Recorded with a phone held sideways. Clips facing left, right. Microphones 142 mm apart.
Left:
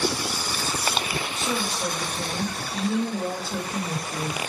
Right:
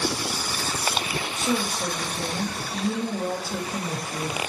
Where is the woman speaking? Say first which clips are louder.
Right 4 dB; 10° right (ahead or behind), 0.9 m.